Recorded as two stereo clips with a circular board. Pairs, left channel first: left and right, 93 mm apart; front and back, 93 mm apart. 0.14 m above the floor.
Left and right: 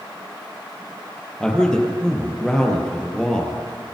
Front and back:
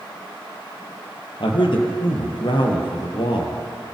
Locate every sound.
1.4 s a man speaking: 10° left, 4 m